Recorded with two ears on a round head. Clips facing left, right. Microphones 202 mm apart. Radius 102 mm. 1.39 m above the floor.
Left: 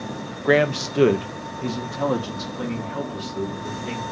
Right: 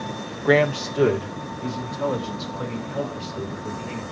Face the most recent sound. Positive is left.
turn(degrees=60)  # may be behind; listen again after turning